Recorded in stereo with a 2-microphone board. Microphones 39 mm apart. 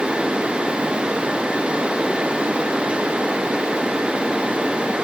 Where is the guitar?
No guitar in this recording.